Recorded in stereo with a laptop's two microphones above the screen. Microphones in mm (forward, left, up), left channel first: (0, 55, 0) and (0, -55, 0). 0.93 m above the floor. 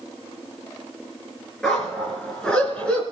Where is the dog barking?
Centre (ahead or behind), 4 m; by 3.0 s 10° left (ahead or behind), 3 m.